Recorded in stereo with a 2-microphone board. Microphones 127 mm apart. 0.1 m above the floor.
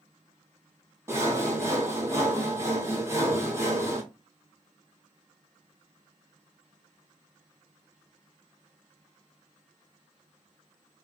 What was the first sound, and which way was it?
Sawing, 20° right (ahead or behind).